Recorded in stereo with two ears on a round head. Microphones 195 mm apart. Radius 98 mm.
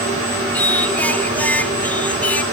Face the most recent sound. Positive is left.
turn(degrees=10)  # may be behind; listen again after turning